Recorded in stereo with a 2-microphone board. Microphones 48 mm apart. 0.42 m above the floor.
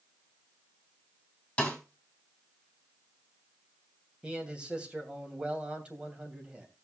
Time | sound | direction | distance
1.6 | a snare drum | 20° left (ahead or behind) | 3.5 m
4.2 | a man speaking | 20° right (ahead or behind) | 3 m